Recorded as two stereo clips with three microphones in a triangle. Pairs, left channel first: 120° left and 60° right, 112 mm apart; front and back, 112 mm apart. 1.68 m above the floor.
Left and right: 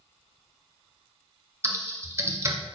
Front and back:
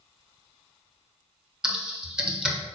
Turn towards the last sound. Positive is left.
turn(degrees=-100)